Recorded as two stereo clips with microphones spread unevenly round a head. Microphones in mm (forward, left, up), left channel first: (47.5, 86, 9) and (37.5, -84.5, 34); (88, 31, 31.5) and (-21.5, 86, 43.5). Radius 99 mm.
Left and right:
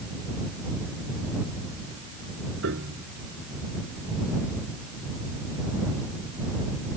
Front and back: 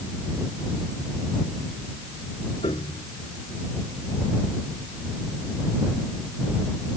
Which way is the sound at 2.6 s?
90° right.